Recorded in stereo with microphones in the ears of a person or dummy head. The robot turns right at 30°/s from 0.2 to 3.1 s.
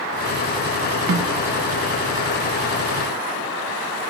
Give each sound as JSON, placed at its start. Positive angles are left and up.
{"t": 1.1, "sound": "a snare drum", "side_deg": -75, "distance_m": 0.7}